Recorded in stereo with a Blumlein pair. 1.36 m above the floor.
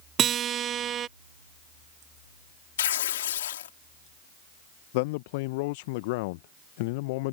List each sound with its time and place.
0.2 s a guitar: 25° right
2.8 s tearing paper: 60° left
4.9 s a man speaking: 50° left